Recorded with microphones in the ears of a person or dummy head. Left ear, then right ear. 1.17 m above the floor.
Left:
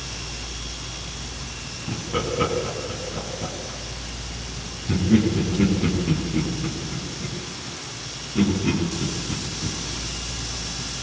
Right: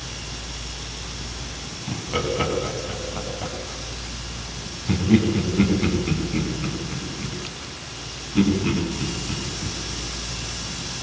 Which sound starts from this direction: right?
Laughter, at 1.9 s.